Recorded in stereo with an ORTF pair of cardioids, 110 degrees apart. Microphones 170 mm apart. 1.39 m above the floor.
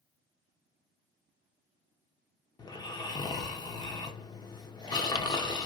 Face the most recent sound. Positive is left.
turn(degrees=25)